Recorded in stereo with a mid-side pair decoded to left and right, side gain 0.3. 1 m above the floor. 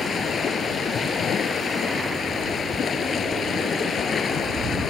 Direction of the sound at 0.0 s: 70° left.